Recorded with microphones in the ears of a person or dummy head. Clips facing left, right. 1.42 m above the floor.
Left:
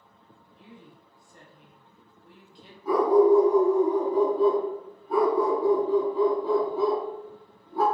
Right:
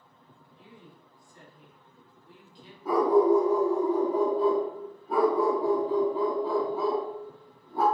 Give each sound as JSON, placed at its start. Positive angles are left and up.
{"t": 0.6, "sound": "a woman speaking", "side_deg": 50, "distance_m": 1.8}
{"t": 2.9, "sound": "a dog barking", "side_deg": -45, "distance_m": 1.3}